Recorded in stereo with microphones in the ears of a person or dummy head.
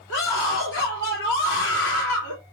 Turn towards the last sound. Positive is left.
turn(degrees=75)  # may be behind; listen again after turning